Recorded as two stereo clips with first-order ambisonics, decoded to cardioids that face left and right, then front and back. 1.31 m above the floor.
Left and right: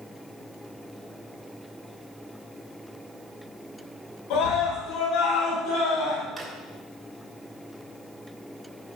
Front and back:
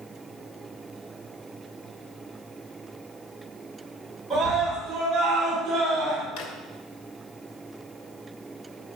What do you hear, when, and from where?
4.3 s a scream: 95° left, 8.5 m; by 6.3 s 100° left, 9 m
6.4 s a drawer: straight ahead, 2.5 m